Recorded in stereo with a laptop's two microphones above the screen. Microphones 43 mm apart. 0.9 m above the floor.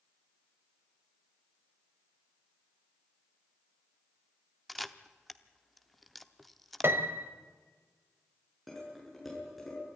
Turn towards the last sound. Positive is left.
turn(degrees=5)  # may be behind; listen again after turning